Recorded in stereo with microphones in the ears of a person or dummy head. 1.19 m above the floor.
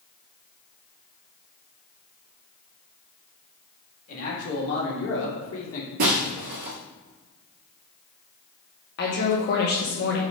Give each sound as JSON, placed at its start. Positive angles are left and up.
{"t": 4.1, "sound": "a man speaking", "side_deg": 45, "distance_m": 3.0}
{"t": 6.0, "sound": "breaking glass", "side_deg": -40, "distance_m": 1.6}
{"t": 9.0, "sound": "a woman speaking", "side_deg": 55, "distance_m": 2.5}